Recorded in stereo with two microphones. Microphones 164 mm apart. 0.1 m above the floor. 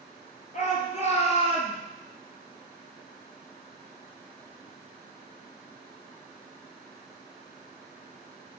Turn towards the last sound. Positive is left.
turn(degrees=35)  # may be behind; listen again after turning